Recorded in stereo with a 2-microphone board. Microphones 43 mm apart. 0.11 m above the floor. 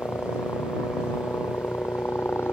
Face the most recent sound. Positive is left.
turn(degrees=60)  # may be behind; listen again after turning